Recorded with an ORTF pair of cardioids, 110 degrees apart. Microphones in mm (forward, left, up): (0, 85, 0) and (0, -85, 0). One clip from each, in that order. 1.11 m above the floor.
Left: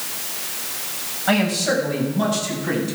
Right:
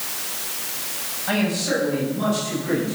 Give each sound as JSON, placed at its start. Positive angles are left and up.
{"t": 1.3, "sound": "a man speaking", "azimuth_deg": 50, "distance_m": 6.0}